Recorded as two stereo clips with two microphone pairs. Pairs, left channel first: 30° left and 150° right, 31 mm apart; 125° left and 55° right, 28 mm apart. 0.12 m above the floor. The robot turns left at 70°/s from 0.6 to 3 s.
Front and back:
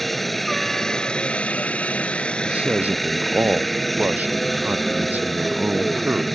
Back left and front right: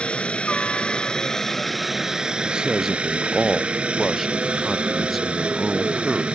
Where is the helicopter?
115° left; by 6.4 s 55° right.